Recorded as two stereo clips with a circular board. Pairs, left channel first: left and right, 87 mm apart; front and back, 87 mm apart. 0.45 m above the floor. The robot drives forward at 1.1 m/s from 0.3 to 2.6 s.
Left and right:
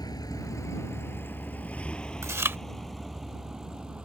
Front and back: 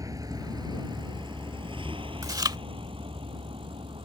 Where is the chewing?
140° right; by 2.6 s 155° right.